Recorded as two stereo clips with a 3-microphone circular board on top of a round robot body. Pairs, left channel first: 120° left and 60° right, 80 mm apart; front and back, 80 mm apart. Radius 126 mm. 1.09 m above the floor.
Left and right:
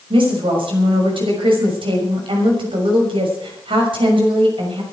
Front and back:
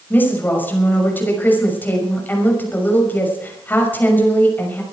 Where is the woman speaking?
65° right, 6 m.